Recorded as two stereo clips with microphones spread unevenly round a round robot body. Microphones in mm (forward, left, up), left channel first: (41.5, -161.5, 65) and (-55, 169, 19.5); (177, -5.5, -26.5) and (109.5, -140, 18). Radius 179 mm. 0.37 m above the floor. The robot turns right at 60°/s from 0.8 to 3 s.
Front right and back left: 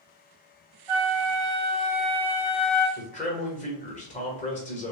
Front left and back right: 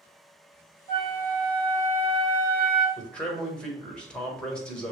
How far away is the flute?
About 0.8 m.